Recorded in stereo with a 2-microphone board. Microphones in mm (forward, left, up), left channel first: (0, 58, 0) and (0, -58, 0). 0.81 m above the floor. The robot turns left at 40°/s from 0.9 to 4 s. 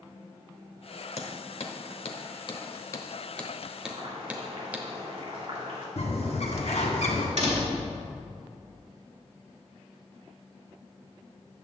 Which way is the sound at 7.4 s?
75° right (ahead or behind).